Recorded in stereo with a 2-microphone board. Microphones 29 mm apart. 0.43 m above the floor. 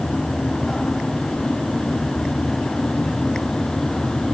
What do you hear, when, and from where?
Only background noise.